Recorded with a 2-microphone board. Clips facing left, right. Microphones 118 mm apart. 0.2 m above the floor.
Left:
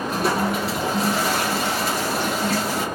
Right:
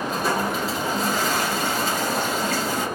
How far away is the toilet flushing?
About 3.5 m.